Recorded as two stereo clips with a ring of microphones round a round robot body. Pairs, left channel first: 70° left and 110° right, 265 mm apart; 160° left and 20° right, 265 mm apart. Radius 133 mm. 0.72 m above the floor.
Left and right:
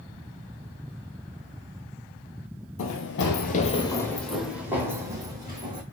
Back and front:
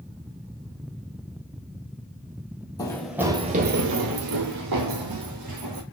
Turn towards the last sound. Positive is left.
turn(degrees=-40)